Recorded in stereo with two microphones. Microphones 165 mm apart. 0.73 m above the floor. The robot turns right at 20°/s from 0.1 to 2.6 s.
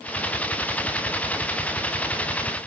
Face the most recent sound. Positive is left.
No sound to turn to.